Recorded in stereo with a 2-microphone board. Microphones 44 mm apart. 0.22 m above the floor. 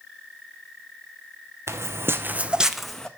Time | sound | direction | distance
1.7 | footsteps | 75° right (ahead or behind) | 0.9 m